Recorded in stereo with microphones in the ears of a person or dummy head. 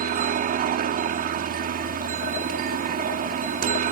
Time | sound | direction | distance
0.0 | a helicopter | 40° right (ahead or behind) | ?